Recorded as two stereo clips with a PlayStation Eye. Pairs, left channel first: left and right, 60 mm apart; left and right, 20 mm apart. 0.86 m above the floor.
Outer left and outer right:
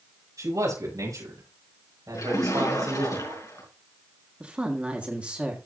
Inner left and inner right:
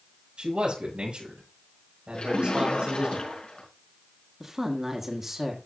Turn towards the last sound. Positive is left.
turn(degrees=-20)  # may be behind; listen again after turning